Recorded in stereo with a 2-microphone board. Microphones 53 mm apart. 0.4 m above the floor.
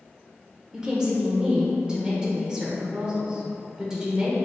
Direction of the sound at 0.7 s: 15° right (ahead or behind).